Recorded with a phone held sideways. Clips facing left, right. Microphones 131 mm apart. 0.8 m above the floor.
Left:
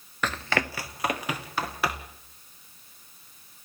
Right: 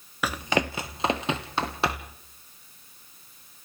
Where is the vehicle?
No vehicle in this recording.